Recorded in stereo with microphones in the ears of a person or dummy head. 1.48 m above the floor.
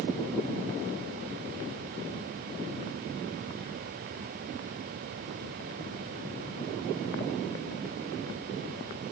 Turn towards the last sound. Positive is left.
No sound to turn to.